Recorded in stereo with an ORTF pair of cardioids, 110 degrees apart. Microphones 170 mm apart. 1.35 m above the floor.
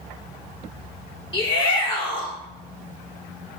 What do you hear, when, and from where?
1.3 s a shout: 30° left, 3.5 m